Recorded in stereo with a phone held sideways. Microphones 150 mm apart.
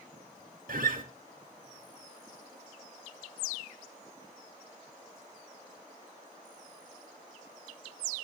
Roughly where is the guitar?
Right.